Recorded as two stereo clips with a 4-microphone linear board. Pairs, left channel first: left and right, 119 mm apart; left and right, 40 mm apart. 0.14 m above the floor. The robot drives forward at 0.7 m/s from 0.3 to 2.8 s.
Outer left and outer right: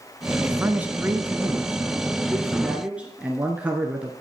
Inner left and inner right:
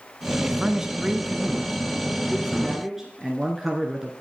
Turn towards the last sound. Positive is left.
turn(degrees=-10)  # may be behind; listen again after turning